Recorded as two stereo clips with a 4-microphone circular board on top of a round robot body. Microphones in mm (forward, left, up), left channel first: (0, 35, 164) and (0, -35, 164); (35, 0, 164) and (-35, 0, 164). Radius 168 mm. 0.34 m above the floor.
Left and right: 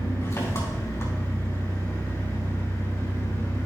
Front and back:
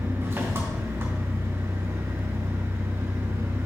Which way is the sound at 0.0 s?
135° left.